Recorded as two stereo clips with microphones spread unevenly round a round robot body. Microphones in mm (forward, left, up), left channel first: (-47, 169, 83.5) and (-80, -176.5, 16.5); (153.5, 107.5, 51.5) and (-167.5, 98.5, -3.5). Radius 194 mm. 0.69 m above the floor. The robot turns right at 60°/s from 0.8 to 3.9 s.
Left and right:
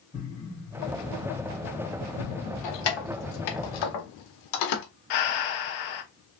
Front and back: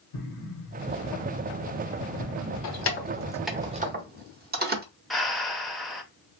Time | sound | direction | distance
0.1 | an explosion | 5° left | 1.4 m
2.6 | keys jangling | 45° left | 0.9 m
5.1 | breathing | 95° left | 0.8 m